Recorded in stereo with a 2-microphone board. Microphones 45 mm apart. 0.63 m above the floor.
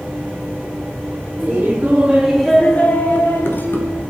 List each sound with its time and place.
1.4 s laughter: 30° right (ahead or behind), 1.5 m; by 4.0 s 60° left (ahead or behind), 1.5 m